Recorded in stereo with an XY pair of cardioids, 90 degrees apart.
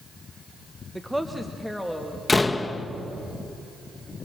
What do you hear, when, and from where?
0.9 s a woman speaking: 10° right, 1.0 m; by 2.2 s 5° left, 2.5 m
2.3 s a door slam: 20° left, 1.3 m